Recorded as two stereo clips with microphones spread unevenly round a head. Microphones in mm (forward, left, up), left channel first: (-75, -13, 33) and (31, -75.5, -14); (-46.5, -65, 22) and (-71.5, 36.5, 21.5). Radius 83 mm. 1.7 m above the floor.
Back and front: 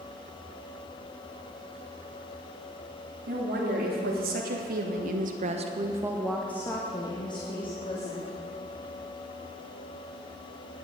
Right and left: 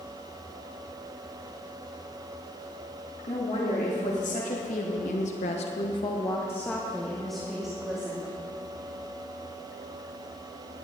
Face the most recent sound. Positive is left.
turn(degrees=-175)